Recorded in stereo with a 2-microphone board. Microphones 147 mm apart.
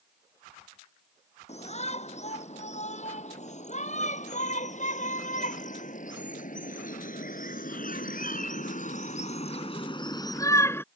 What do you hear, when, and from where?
1.5 s a shout: 50° left (ahead or behind); by 10.9 s 15° left (ahead or behind)